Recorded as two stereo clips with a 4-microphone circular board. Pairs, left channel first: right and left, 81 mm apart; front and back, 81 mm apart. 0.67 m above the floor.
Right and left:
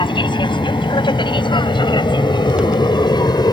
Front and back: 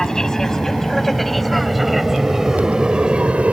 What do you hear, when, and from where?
0.0 s an aircraft: 85° right; by 3.5 s 110° right